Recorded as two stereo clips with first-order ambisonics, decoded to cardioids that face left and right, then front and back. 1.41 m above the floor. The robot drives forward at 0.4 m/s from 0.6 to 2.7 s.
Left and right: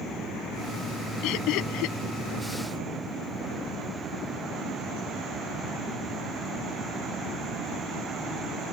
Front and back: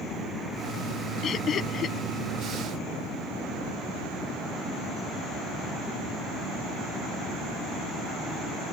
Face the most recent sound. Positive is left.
turn(degrees=65)